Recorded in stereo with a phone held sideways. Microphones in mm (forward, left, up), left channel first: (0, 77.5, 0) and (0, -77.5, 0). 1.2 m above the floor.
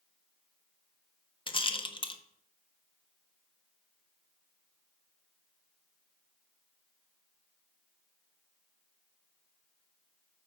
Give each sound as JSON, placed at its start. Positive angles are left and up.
{"t": 1.5, "sound": "a rattle", "side_deg": 35, "distance_m": 0.6}